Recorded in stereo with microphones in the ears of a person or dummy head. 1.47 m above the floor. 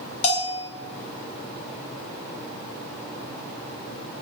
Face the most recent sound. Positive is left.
turn(degrees=30)  # may be behind; listen again after turning